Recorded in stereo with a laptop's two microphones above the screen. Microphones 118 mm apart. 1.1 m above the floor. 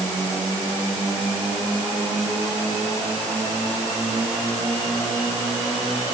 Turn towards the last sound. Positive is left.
No sound to turn to.